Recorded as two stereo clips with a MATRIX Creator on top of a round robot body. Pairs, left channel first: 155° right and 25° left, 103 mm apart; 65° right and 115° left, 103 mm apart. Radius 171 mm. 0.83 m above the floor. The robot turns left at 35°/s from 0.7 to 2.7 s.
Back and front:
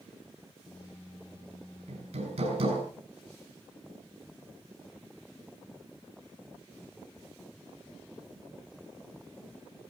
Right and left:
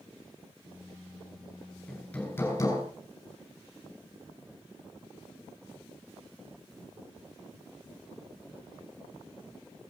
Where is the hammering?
20° left, 6 m; by 2.8 s 10° right, 6 m.